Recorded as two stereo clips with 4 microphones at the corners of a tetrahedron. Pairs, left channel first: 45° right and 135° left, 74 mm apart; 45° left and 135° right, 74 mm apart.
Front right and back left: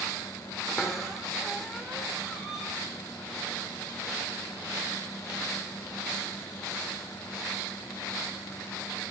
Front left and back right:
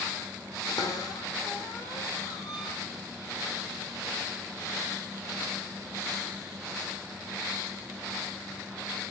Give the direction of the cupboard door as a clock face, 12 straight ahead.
10 o'clock.